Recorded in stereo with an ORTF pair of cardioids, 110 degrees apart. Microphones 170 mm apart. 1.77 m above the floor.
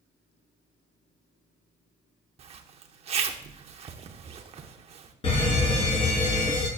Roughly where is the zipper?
Ahead right.